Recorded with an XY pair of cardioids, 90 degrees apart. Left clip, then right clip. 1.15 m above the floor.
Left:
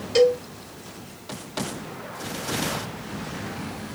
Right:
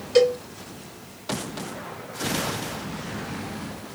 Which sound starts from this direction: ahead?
A cowbell, at 0.1 s.